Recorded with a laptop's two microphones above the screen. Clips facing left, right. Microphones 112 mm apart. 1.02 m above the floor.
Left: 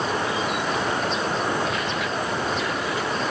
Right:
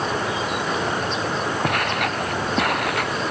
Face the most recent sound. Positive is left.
turn(degrees=-65)  # may be behind; listen again after turning